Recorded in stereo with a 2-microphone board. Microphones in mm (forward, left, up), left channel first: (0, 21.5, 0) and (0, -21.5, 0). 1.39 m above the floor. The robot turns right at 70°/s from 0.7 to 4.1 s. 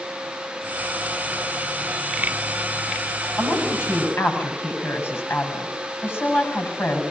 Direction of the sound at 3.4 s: 65° left.